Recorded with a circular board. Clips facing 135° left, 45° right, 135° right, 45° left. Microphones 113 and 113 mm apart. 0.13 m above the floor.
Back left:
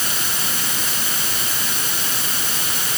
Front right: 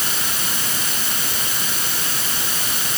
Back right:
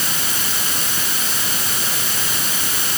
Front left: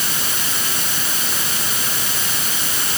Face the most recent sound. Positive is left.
No sound to turn to.